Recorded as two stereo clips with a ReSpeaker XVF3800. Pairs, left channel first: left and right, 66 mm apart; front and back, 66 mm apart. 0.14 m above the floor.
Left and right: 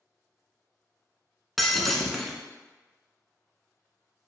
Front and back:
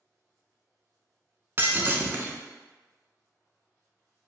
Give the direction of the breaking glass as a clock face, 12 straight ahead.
6 o'clock.